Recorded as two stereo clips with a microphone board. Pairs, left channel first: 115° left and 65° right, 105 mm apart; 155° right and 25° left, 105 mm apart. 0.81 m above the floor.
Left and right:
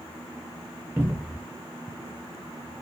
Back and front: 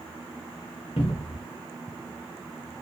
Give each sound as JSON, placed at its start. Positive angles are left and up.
{"t": 1.0, "sound": "a cupboard door", "azimuth_deg": -140, "distance_m": 0.5}